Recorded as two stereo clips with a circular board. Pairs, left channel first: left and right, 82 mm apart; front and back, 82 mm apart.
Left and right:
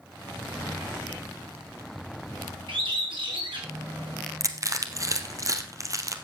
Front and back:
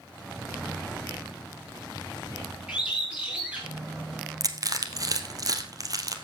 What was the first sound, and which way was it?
A bird, 100° right.